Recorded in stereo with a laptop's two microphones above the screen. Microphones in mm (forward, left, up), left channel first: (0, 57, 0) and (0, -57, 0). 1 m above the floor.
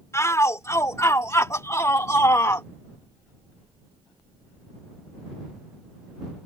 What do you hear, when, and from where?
0.1 s a shout: 25° left (ahead or behind); by 2.7 s 30° left (ahead or behind)